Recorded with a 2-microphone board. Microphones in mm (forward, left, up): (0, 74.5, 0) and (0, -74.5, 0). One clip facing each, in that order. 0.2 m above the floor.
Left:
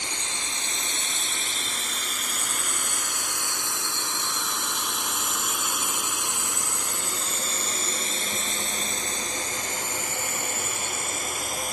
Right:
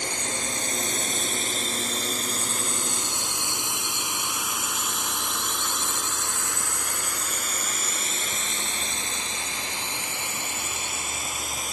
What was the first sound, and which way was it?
A drone, 55° right (ahead or behind).